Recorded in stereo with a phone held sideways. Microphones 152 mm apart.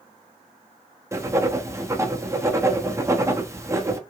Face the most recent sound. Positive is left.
turn(degrees=-20)  # may be behind; listen again after turning